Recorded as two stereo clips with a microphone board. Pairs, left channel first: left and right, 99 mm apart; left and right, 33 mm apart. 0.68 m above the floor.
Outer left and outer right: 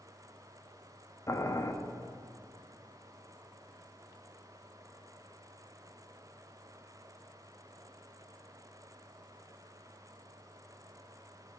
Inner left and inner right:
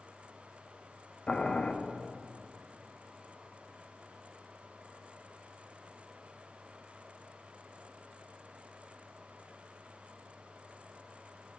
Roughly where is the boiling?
Left.